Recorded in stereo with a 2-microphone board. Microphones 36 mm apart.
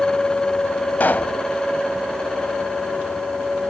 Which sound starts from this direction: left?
A pop, at 1.0 s.